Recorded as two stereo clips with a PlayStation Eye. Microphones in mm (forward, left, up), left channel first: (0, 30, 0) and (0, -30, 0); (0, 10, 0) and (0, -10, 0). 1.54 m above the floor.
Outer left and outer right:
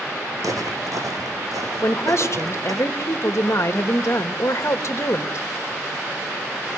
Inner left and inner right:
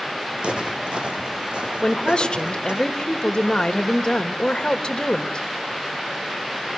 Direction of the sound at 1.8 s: 55° left (ahead or behind).